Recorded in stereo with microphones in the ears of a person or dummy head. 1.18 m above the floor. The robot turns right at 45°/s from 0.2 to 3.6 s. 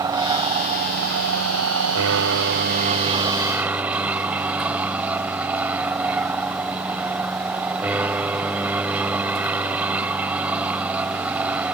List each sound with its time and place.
0.0 s an aircraft: 165° right; by 11.7 s 15° right